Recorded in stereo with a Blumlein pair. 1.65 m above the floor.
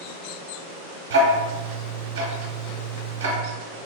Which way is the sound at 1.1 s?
60° right.